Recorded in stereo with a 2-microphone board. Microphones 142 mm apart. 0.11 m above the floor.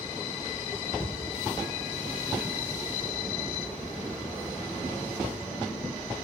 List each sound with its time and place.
1.0 s a cupboard door: 45° left (ahead or behind), 5 m